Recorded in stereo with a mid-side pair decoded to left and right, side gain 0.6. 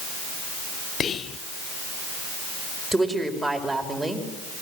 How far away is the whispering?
About 1.0 m.